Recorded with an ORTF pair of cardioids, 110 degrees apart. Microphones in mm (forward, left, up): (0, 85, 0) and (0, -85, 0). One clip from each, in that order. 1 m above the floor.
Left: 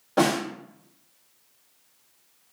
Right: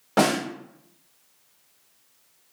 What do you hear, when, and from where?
0.2 s a snare drum: 40° right, 1.2 m